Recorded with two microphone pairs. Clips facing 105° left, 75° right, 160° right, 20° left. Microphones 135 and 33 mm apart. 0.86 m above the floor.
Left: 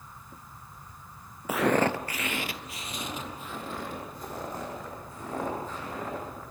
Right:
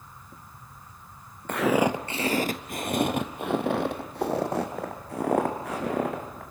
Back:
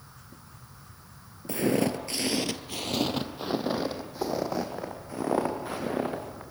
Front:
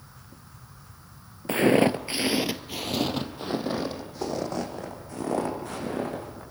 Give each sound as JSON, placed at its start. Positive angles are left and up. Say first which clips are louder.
{"t": 1.5, "sound": "footsteps", "louder": "right 2 dB, front 6 dB", "azimuth_deg": 20, "distance_m": 1.2}